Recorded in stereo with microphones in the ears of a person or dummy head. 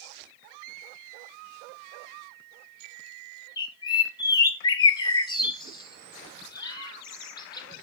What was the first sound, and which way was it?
A bird, 20° left (ahead or behind).